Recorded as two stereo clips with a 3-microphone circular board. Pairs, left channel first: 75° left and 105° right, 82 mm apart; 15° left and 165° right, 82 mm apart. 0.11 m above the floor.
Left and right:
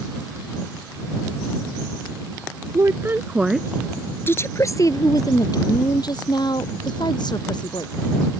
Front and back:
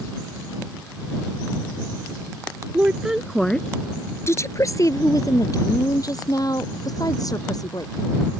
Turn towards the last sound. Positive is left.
turn(degrees=55)